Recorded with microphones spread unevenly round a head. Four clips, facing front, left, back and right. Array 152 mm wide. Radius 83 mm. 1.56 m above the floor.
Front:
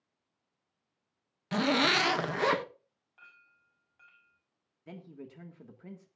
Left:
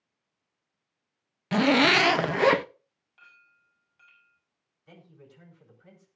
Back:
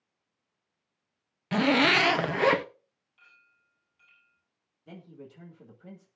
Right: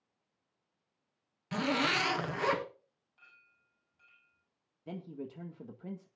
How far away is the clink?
About 6.5 m.